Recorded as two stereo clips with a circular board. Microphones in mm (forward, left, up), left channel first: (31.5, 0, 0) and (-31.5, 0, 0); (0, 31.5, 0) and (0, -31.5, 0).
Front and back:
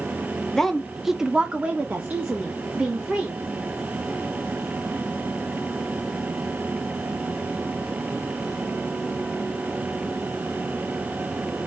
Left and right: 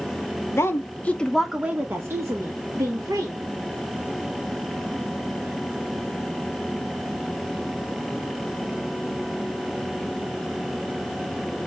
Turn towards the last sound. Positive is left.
turn(degrees=-120)